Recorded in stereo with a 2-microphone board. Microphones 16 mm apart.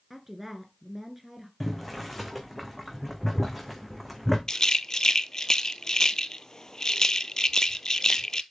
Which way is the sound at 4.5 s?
35° left (ahead or behind).